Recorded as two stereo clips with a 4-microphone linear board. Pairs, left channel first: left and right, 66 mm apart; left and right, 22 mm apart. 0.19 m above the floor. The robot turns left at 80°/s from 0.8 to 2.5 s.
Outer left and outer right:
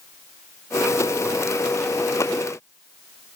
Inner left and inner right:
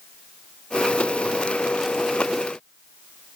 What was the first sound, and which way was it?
Only background noise.